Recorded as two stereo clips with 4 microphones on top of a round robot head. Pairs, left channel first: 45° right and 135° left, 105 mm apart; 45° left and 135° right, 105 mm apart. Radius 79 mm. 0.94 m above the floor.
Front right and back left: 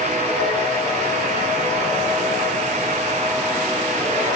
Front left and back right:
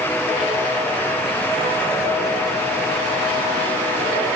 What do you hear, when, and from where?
Only background noise.